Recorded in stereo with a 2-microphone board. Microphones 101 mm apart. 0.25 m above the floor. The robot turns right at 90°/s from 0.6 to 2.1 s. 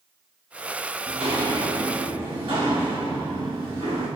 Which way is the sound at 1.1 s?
75° right (ahead or behind).